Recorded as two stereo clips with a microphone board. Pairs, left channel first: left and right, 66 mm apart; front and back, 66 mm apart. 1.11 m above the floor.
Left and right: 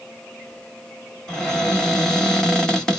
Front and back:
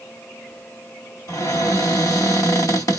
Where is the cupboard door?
10° left, 1.6 m.